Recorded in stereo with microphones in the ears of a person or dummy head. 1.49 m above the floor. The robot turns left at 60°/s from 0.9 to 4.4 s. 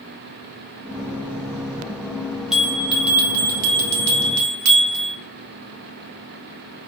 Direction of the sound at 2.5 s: 5° right.